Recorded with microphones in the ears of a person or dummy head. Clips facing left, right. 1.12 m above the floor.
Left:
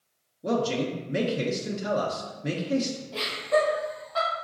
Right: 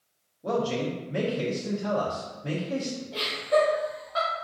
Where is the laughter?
20° right (ahead or behind), 2 m.